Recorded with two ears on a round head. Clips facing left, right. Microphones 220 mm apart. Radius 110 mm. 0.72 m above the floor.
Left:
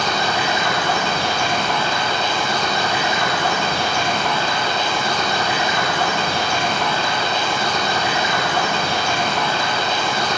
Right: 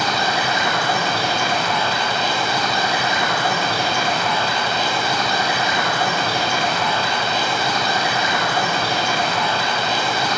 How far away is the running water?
About 5.5 m.